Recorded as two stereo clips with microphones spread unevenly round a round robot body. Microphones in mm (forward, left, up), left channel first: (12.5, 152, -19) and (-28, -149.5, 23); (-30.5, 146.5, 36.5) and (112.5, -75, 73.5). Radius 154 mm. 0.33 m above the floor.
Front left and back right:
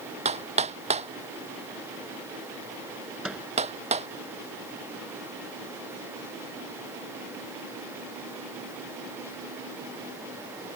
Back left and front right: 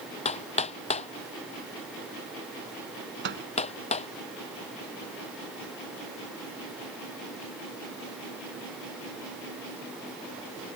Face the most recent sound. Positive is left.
turn(degrees=-10)